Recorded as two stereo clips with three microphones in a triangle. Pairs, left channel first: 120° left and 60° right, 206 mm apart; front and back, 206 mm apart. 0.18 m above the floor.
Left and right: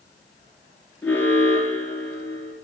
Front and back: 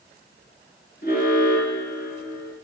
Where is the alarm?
40° left, 3.5 m.